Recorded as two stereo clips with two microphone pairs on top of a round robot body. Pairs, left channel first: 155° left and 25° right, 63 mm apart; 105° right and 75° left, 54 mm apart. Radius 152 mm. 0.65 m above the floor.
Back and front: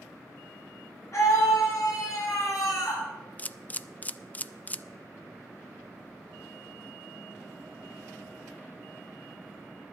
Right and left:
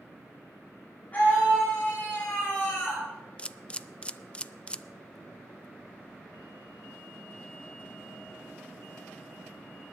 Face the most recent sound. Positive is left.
turn(degrees=-145)